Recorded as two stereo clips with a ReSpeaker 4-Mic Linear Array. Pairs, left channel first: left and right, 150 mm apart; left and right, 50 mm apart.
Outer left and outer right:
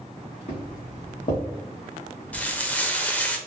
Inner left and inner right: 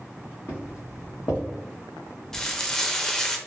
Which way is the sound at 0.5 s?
50° left (ahead or behind).